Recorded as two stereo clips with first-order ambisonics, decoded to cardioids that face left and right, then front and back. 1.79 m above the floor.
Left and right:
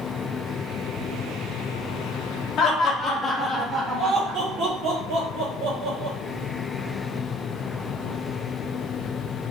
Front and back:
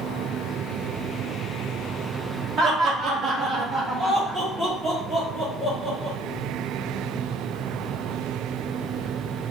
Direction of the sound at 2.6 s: 130° left.